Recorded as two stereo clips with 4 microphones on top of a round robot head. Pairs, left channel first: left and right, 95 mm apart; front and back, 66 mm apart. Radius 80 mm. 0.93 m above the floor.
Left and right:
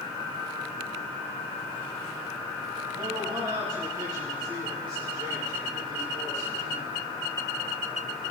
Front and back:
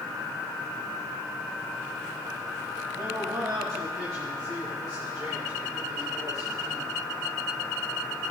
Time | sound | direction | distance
2.9 | a man speaking | 135° right | 7.5 m